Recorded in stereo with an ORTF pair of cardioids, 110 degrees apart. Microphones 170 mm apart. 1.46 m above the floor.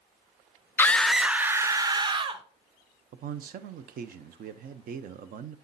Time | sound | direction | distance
0.8 | a scream | 10° left | 0.7 m
3.1 | a man speaking | 55° right | 0.8 m